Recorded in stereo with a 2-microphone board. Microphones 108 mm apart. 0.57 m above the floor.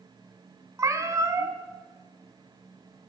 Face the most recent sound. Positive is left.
turn(degrees=-30)  # may be behind; listen again after turning